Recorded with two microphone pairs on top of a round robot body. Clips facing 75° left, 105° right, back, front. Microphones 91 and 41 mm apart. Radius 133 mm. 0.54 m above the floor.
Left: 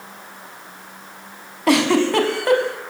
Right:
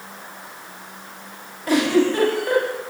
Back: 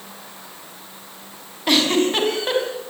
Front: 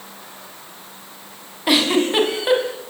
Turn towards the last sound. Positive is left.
turn(degrees=85)